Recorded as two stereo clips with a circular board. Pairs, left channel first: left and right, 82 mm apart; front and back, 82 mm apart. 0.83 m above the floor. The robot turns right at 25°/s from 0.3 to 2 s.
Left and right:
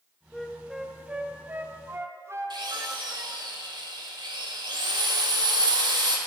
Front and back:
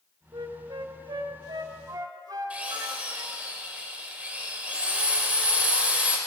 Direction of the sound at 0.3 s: 175° left.